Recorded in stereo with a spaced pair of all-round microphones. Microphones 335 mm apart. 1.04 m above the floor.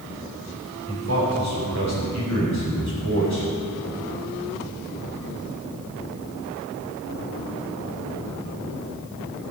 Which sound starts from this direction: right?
A man speaking, at 0.9 s.